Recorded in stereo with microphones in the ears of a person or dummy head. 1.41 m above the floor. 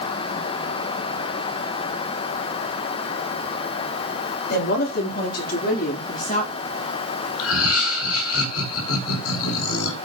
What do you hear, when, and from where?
4.5 s a woman speaking: 60° left (ahead or behind), 4.5 m; by 7.3 s 30° left (ahead or behind), 2.5 m
7.4 s laughter: 90° left, 5 m